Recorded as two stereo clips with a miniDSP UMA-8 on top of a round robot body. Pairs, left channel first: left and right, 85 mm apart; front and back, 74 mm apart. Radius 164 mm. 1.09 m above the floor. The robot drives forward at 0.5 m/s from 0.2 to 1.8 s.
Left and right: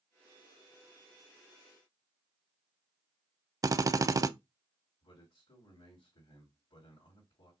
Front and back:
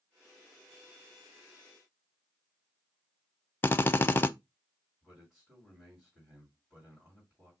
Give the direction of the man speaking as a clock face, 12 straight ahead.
9 o'clock.